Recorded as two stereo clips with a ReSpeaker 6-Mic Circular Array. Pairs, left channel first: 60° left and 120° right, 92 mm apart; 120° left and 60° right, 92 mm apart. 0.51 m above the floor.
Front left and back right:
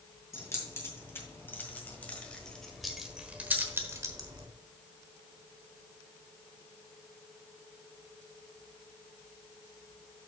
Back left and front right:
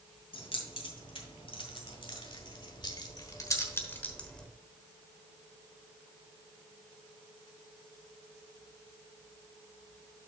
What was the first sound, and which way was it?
Keys jangling, 120° left.